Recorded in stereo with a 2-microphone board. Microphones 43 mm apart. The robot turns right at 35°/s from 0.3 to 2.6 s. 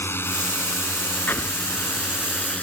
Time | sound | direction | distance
0.0 | a drone | 70° left (ahead or behind) | ?
1.3 | an explosion | 60° left (ahead or behind) | ?